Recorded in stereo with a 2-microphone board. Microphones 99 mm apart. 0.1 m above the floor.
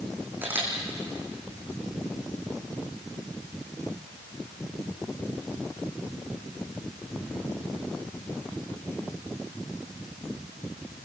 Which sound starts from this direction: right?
A camera shutter, at 0.4 s.